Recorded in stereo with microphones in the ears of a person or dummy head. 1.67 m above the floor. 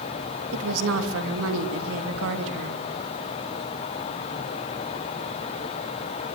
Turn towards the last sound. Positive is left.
turn(degrees=-80)